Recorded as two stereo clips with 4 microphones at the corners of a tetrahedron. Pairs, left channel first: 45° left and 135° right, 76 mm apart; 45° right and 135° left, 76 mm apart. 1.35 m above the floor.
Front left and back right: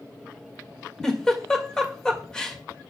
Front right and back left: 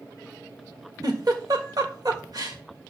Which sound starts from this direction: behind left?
A giggle, at 1.0 s.